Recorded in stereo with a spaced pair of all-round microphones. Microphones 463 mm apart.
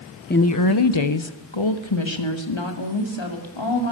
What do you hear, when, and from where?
0.3 s a woman speaking: 20° left (ahead or behind), 0.9 m; by 3.9 s 70° left (ahead or behind), 5 m